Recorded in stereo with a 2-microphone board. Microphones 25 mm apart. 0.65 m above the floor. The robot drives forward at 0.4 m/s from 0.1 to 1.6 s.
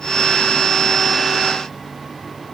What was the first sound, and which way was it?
Only background noise.